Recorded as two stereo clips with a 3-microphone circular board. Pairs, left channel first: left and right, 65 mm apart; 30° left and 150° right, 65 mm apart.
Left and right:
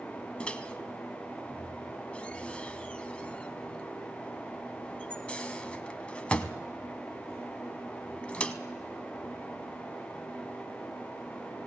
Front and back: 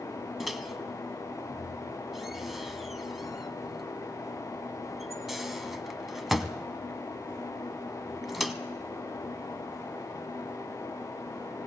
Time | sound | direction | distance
0.4 | a microwave | 130° left | 0.8 m